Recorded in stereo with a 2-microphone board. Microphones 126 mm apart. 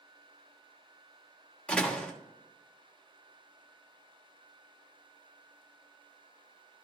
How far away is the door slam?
About 1.2 m.